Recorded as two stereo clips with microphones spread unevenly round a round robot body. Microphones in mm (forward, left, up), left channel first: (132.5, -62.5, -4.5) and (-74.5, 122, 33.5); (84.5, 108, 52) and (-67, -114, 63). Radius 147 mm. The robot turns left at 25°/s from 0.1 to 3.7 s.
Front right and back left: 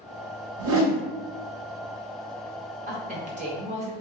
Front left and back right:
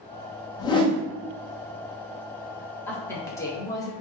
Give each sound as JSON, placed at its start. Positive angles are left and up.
{"t": 0.6, "sound": "a whoosh", "azimuth_deg": 120, "distance_m": 0.7}
{"t": 2.9, "sound": "a woman speaking", "azimuth_deg": 120, "distance_m": 0.9}